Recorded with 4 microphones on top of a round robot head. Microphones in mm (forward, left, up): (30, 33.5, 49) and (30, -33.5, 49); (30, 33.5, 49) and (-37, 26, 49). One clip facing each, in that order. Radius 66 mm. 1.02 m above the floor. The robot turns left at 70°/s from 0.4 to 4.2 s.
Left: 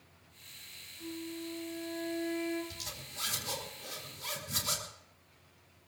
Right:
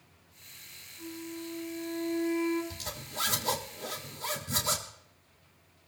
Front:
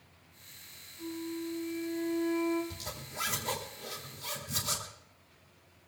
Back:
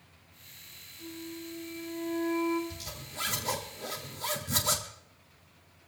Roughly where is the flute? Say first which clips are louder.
Right 1 dB, front 4 dB; ahead right.